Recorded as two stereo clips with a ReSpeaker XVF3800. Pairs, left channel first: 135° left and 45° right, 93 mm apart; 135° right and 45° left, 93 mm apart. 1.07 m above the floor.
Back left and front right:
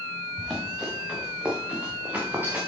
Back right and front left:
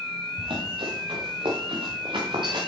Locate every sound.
0.4 s running footsteps: 45° left, 7 m; by 2.6 s 20° left, 5.5 m